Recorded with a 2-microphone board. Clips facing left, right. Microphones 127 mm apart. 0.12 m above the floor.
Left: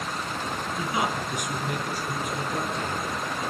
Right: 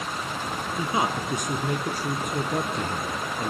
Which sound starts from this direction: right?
A man speaking, at 0.8 s.